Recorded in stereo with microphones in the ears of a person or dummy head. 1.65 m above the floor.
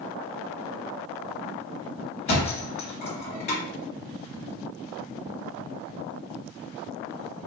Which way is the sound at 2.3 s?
45° left (ahead or behind).